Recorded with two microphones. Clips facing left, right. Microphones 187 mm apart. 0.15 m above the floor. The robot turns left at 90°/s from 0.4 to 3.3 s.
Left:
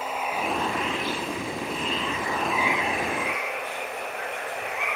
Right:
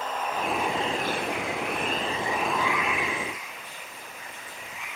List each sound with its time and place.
0.0 s running water: 10° left; by 5.0 s 110° left